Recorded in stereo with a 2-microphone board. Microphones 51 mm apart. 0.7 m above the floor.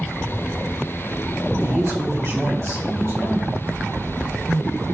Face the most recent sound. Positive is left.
turn(degrees=-70)  # may be behind; listen again after turning